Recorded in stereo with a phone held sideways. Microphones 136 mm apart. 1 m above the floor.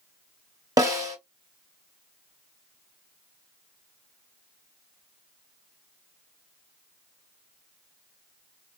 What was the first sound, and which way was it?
A snare drum, 25° right (ahead or behind).